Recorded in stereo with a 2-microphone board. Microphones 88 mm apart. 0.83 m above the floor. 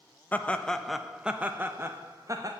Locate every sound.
0.3 s laughter: 20° left (ahead or behind), 0.9 m; by 2.5 s 40° right (ahead or behind), 1.2 m